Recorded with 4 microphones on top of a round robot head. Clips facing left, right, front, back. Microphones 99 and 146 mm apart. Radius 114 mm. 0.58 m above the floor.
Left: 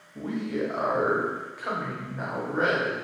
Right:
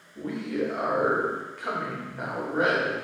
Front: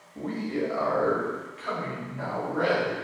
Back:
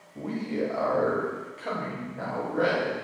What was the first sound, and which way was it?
A man speaking, 100° left.